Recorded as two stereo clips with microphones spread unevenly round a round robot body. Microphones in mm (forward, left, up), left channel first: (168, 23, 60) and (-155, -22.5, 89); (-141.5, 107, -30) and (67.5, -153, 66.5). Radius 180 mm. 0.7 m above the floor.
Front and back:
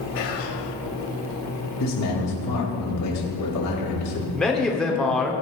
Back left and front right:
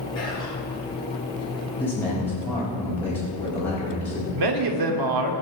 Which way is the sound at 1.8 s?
45° left.